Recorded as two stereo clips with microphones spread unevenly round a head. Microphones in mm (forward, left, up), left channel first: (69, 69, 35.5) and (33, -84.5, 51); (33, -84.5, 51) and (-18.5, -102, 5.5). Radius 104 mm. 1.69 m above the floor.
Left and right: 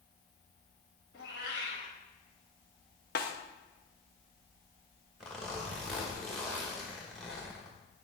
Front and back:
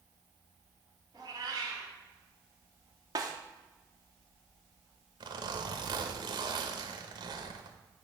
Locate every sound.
1.1 s a cat meowing: 105° left, 2.5 m
3.1 s a snare drum: 105° left, 0.8 m
5.2 s a zipper: 175° left, 1.0 m